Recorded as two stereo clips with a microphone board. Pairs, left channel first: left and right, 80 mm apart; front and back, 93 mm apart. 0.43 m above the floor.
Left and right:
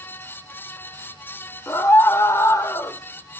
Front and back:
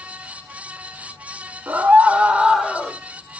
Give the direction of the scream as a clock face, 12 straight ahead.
8 o'clock.